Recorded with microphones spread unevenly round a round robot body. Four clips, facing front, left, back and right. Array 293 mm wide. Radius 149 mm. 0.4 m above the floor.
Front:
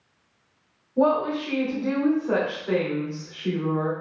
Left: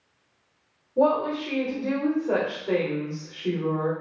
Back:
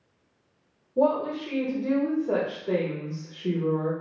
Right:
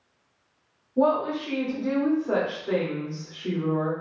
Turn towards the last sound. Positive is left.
turn(degrees=165)